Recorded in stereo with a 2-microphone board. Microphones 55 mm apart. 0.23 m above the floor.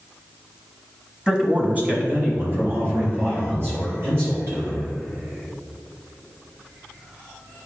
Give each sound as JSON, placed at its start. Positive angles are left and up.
{"t": 1.3, "sound": "a man speaking", "side_deg": -15, "distance_m": 1.3}